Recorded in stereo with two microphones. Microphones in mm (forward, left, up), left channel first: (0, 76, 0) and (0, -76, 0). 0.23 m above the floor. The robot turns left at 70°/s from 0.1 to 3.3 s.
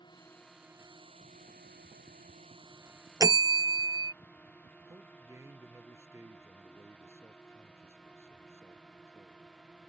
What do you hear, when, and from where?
0.0 s a drone: 30° left (ahead or behind); by 9.9 s 5° left (ahead or behind)
3.2 s a bell: 20° right (ahead or behind); by 4.1 s 30° right (ahead or behind)
4.9 s a man speaking: 20° right (ahead or behind)